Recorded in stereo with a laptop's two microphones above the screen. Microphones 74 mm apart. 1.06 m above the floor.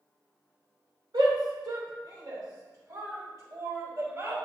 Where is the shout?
80° right, 3 m; by 4.4 s 40° right (ahead or behind), 5 m.